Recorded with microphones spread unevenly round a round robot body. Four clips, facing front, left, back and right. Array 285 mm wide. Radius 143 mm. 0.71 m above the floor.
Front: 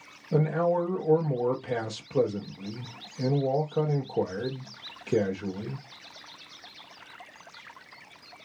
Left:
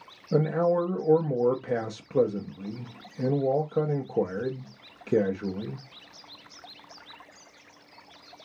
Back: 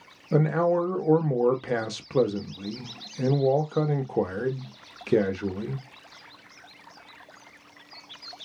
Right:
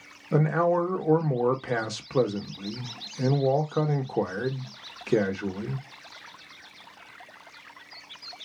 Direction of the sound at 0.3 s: 170° right.